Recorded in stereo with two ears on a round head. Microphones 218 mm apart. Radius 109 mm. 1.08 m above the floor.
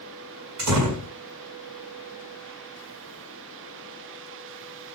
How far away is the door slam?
About 6.5 m.